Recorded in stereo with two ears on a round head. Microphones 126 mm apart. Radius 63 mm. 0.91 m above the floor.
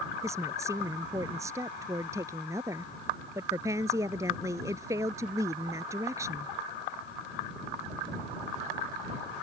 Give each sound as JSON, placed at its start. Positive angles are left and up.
{"t": 0.2, "sound": "a woman speaking", "side_deg": -20}